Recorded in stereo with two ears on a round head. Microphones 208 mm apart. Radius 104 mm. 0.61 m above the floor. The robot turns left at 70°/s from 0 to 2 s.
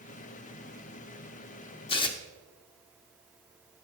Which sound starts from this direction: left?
Tearing paper, at 1.9 s.